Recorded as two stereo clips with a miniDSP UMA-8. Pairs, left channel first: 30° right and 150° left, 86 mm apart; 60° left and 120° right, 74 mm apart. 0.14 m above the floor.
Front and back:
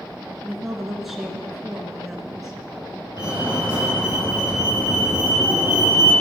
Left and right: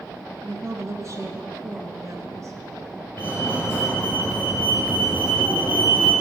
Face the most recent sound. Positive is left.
turn(degrees=5)